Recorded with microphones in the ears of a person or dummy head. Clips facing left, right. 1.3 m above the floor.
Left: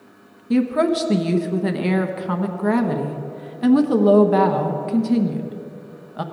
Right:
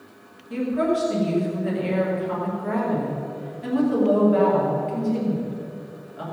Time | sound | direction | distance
0.5 | a woman speaking | 70° left (ahead or behind) | 1.1 m